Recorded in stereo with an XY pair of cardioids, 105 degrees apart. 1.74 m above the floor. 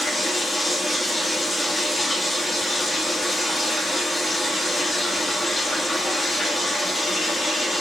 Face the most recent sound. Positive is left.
turn(degrees=25)